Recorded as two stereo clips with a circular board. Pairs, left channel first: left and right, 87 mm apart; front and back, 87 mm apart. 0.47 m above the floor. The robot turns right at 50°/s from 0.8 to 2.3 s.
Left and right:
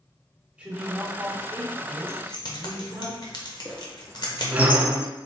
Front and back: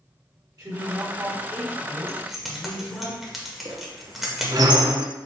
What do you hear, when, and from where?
0.6 s a woman speaking: 155° right, 1.4 m; by 3.1 s 80° right, 1.4 m
2.1 s keys jangling: 80° left, 0.9 m; by 4.7 s 90° left, 0.9 m
3.6 s a squeak: 155° right, 0.6 m